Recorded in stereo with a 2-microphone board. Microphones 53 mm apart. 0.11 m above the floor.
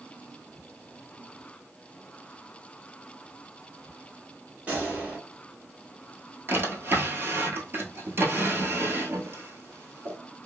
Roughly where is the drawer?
Right.